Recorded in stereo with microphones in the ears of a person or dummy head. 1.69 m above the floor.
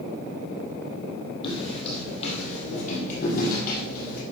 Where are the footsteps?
30° left (ahead or behind), 3.5 m; by 4.2 s 55° left (ahead or behind), 3.5 m.